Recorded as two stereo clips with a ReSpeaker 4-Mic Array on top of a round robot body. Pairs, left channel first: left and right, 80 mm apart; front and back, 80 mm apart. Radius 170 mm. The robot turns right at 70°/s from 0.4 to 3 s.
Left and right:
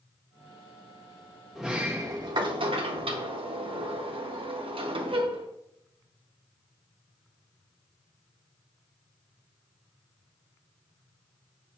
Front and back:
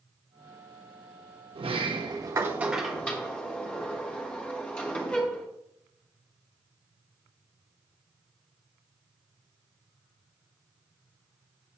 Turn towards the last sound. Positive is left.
turn(degrees=-75)